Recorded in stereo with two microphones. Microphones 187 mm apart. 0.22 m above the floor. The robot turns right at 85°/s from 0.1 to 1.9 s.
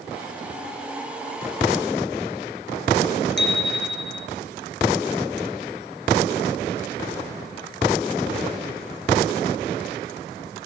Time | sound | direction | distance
3.4 | a bicycle bell | 70° left (ahead or behind) | 3 m